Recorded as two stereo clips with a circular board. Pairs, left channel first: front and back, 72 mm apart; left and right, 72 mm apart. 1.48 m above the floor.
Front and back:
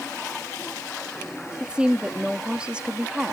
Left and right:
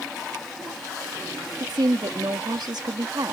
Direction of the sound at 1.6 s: 105° right.